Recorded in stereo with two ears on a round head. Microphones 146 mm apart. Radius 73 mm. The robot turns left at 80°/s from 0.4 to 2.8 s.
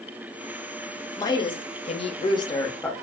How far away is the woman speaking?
About 0.6 m.